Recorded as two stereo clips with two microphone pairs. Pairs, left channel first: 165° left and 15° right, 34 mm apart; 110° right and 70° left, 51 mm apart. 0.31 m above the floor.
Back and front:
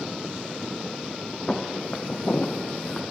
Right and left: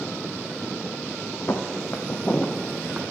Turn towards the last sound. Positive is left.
turn(degrees=135)